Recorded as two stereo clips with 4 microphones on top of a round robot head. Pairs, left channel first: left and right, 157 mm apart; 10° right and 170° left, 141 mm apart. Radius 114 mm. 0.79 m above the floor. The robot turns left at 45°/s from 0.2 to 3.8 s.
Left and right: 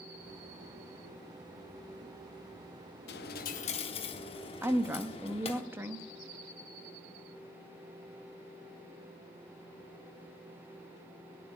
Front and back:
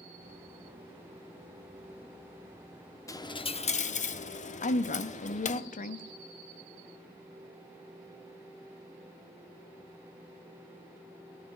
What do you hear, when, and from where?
3.1 s a dropped coin: 60° left, 0.8 m; by 5.6 s 25° left, 0.8 m
4.6 s a woman speaking: 15° right, 0.9 m